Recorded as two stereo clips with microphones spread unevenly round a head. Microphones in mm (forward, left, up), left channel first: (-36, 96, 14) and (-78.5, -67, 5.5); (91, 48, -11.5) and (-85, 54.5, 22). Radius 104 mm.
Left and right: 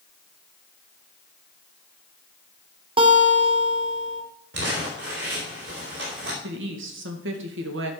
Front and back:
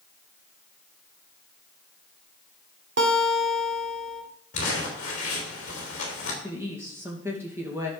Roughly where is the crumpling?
Ahead right.